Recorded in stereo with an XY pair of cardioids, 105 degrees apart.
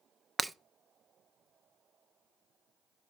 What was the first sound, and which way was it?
Breaking glass, 10° right.